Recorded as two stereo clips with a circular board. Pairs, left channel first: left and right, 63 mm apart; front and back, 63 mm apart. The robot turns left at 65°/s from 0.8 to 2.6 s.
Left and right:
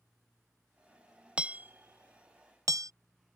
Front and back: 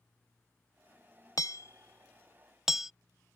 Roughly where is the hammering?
Ahead.